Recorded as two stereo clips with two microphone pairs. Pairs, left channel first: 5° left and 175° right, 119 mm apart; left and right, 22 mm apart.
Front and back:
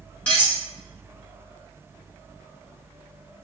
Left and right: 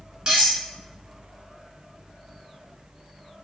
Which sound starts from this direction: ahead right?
Cutlery clinking, at 0.3 s.